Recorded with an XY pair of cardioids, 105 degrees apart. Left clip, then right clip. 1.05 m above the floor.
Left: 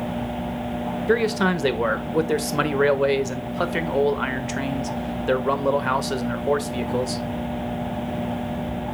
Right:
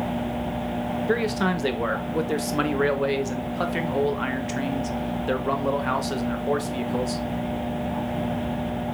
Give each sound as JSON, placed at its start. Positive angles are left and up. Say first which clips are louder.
{"t": 1.1, "sound": "a man speaking", "louder": "left 4 dB", "azimuth_deg": 25, "distance_m": 0.9}